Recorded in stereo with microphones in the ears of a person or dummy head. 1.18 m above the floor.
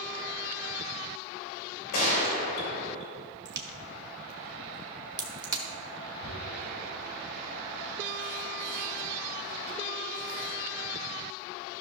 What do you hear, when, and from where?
1.9 s a gunshot: 40° left (ahead or behind), 2.5 m
3.5 s a crack: 25° right (ahead or behind), 1.0 m
6.2 s tearing paper: 35° right (ahead or behind), 2.5 m